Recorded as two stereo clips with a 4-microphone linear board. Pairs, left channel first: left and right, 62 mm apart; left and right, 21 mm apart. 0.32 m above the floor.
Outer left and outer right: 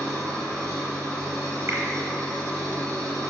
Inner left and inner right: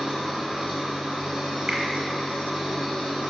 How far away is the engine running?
About 3 m.